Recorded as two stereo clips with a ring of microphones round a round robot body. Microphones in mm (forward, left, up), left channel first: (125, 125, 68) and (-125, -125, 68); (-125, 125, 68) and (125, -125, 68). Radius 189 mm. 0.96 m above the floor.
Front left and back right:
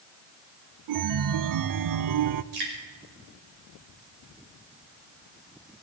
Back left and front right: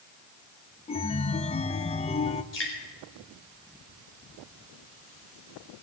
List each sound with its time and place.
0.9 s a chime: 155° right, 0.6 m
2.5 s dripping: 165° right, 5.5 m